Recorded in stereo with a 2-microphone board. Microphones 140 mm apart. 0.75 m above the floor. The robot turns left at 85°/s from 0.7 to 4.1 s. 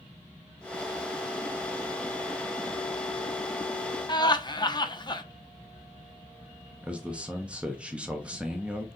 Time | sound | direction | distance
4.1 | laughter | 30° left (ahead or behind) | 0.7 m
6.8 | a man speaking | 10° right (ahead or behind) | 0.7 m